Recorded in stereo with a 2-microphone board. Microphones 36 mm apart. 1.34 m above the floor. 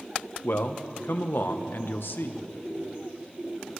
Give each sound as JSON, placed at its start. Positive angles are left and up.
{"t": 0.4, "sound": "a man speaking", "side_deg": 70, "distance_m": 1.0}